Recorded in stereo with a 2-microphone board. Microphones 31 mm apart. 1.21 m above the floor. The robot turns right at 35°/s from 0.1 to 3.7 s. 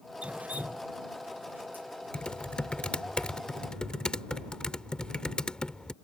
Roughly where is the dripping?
Right.